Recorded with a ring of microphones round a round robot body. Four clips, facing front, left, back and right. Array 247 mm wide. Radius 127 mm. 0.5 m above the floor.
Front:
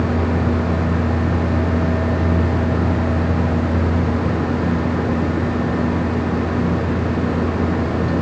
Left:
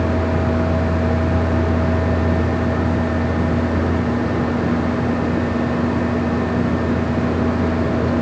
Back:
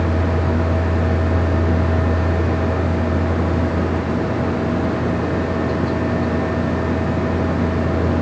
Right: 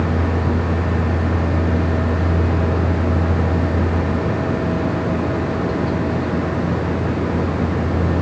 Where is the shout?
I don't hear a shout.